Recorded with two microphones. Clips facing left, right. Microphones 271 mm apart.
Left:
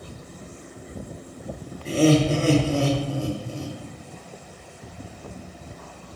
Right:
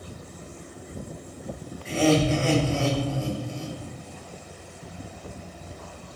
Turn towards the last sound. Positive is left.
turn(degrees=40)  # may be behind; listen again after turning